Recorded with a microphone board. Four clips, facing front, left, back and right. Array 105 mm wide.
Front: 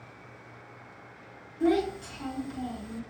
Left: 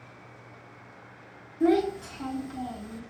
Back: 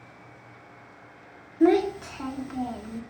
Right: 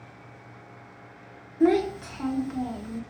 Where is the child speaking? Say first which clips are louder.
Right 2 dB, back 5 dB; 140° right, 0.5 m.